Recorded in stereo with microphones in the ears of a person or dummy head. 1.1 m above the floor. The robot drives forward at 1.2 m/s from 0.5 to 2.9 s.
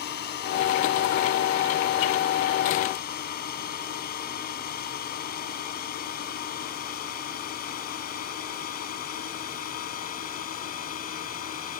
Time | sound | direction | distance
0.0 | a drone | 55° left (ahead or behind) | ?